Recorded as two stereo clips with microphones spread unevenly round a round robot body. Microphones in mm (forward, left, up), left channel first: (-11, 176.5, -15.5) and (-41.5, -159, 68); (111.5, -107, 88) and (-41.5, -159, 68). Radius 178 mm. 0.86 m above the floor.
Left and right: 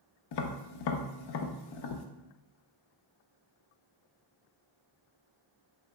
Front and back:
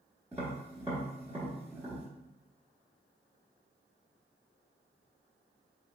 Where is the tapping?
110° left, 0.5 m.